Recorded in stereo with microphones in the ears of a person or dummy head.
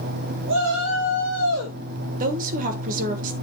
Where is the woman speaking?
45° right (ahead or behind), 1.2 m.